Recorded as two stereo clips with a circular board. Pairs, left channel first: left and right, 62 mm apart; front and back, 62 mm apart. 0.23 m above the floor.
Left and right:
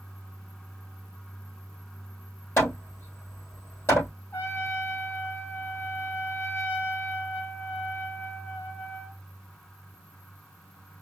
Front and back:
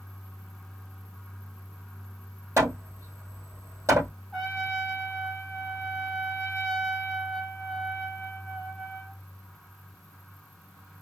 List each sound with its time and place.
2.6 s hammering: 140° left, 2.5 m
4.3 s a trumpet: 100° left, 1.8 m